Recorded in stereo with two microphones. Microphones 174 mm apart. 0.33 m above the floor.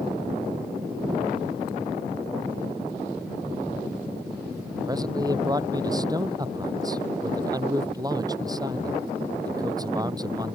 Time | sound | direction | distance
4.9 | a man speaking | 20° right (ahead or behind) | ?